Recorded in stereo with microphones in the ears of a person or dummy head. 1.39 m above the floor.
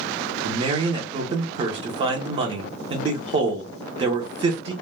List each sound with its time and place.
0.4 s a man speaking: 35° right (ahead or behind), 0.6 m